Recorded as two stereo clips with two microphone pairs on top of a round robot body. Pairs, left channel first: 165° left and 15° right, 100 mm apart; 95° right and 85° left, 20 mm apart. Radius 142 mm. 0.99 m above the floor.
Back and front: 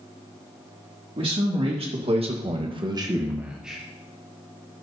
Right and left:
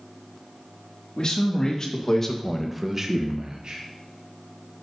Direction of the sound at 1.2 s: 45° right.